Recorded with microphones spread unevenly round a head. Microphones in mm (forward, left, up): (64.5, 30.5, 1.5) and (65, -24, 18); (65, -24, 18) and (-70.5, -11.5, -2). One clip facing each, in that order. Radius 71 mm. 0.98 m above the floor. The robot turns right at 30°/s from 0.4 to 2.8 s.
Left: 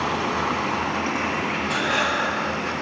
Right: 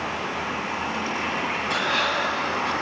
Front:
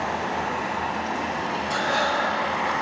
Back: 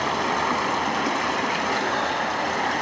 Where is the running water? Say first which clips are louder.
Left 5 dB, back 2 dB; 155° left, 2.5 m; by 2.8 s 135° right, 2.5 m.